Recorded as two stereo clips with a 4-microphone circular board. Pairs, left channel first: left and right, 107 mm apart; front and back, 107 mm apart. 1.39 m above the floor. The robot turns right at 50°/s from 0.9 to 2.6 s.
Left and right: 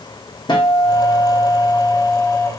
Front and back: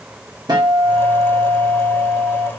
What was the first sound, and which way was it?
A guitar, 135° left.